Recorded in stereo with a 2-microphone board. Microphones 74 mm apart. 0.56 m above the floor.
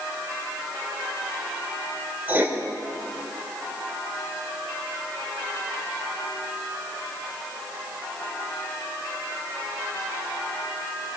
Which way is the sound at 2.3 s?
25° right (ahead or behind).